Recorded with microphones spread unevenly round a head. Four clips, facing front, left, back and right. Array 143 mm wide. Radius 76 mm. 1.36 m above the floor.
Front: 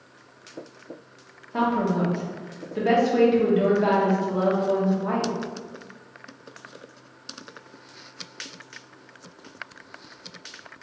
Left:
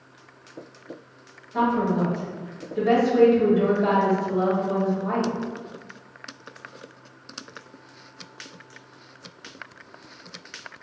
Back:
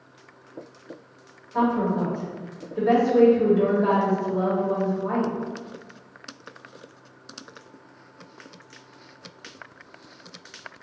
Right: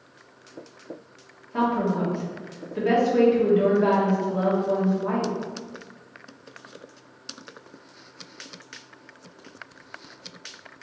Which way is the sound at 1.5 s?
10° right.